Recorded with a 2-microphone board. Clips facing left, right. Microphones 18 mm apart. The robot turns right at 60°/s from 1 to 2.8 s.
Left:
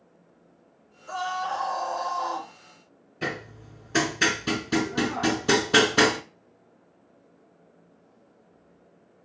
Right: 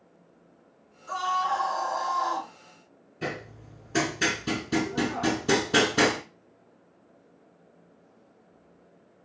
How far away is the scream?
About 2.5 m.